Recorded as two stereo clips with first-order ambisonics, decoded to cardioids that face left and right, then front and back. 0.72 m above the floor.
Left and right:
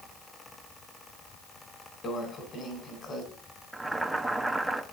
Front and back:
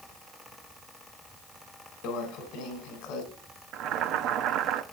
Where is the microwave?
30° left, 3 m.